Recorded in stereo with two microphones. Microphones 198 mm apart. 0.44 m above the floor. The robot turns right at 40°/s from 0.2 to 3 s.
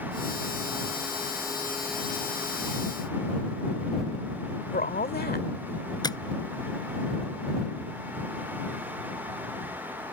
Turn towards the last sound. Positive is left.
turn(degrees=20)  # may be behind; listen again after turning